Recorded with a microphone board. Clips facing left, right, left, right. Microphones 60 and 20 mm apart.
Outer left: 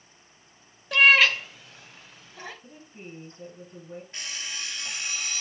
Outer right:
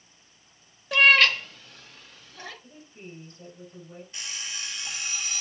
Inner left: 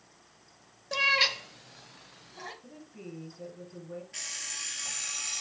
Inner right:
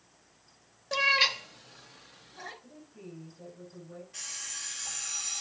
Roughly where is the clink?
I don't hear a clink.